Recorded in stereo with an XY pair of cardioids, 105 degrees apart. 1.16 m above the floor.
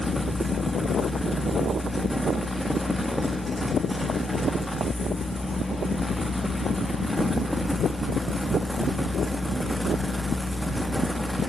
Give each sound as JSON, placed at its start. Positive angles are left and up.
{"t": 0.0, "sound": "a fan", "azimuth_deg": 5, "distance_m": 1.8}